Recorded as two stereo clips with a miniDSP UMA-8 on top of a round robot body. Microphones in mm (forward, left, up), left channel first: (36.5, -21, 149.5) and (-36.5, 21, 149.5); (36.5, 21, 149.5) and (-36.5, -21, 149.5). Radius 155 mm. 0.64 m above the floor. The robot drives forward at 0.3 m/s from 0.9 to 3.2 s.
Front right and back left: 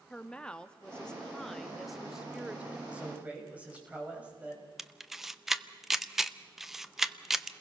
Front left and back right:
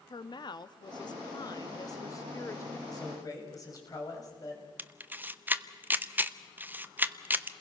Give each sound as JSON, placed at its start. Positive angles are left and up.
{"t": 0.1, "sound": "a woman speaking", "azimuth_deg": 50, "distance_m": 1.3}
{"t": 2.9, "sound": "a man speaking", "azimuth_deg": 75, "distance_m": 5.0}
{"t": 4.8, "sound": "a camera shutter", "azimuth_deg": -130, "distance_m": 1.0}